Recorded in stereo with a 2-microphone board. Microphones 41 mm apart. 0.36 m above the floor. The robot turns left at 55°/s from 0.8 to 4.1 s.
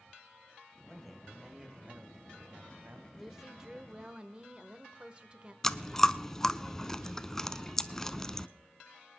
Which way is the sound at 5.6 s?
10° left (ahead or behind).